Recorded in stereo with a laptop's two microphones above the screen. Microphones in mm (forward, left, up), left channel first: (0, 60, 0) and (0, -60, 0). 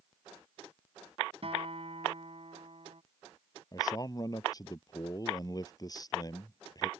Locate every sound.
1.4 s a guitar: 55° right (ahead or behind)
3.7 s a man speaking: 35° left (ahead or behind)